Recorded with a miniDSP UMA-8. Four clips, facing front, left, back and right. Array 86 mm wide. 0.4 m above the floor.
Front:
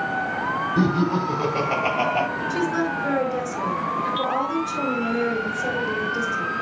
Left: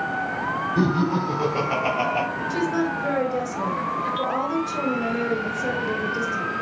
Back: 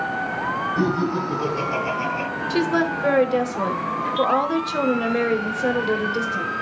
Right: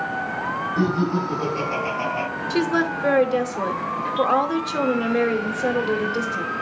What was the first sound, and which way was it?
Laughter, 45° left.